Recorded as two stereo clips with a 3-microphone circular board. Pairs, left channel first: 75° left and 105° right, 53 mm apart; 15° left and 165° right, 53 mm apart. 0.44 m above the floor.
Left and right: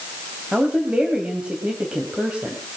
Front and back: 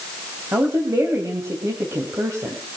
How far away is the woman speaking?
About 3 m.